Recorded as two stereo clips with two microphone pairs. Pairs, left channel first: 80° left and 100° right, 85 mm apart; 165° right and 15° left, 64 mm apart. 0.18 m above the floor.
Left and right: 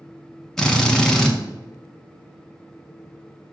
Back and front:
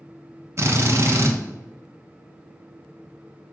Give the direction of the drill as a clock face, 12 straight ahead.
12 o'clock.